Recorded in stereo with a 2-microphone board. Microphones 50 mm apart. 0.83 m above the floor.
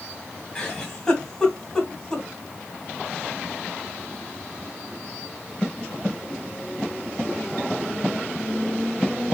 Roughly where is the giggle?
Centre.